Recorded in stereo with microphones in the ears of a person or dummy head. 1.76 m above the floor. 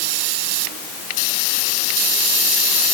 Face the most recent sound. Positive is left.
No sound to turn to.